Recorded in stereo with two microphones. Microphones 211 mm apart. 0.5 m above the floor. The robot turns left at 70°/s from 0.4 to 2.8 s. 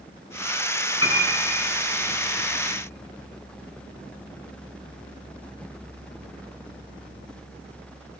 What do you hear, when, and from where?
1.0 s a piano: 75° left (ahead or behind), 6.5 m